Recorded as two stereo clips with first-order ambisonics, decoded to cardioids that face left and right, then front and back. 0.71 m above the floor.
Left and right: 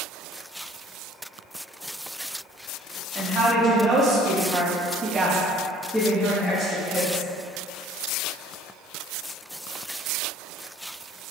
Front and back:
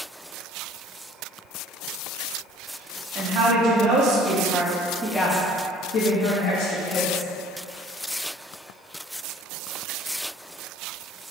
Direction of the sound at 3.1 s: 150° right.